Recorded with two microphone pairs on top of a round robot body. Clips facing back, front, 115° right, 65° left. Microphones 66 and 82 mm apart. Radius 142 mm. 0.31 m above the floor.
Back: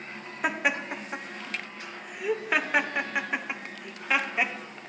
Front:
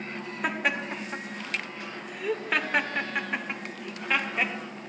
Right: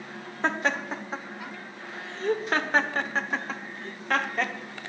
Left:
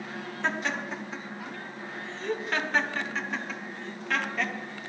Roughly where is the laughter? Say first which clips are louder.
Back 1 dB, right 4 dB; right.